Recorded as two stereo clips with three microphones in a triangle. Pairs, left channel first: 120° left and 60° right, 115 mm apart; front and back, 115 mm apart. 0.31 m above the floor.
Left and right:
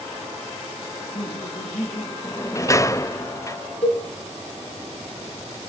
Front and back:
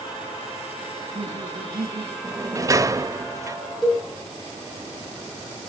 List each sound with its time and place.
0.9 s laughter: 150° left, 6 m; by 2.1 s 155° left, 6 m
2.2 s a sliding door: 150° left, 0.7 m
3.8 s a cowbell: 90° left, 3.5 m